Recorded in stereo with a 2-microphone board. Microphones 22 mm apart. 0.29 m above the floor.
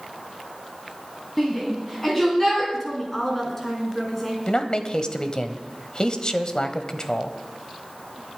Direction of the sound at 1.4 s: 10° left (ahead or behind).